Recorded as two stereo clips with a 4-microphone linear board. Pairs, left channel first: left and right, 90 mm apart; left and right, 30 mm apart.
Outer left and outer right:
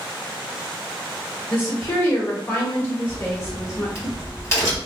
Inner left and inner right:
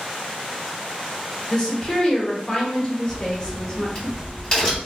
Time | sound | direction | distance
1.5 | a woman speaking | 25° left (ahead or behind) | 1.1 m
3.1 | a crack | 30° left (ahead or behind) | 1.4 m